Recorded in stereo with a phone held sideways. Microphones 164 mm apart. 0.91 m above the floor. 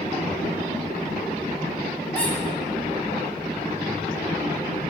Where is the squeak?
10° left (ahead or behind), 4 m.